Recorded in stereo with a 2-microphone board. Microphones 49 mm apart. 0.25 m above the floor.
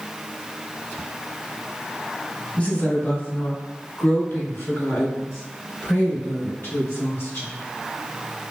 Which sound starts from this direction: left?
A woman speaking, at 2.5 s.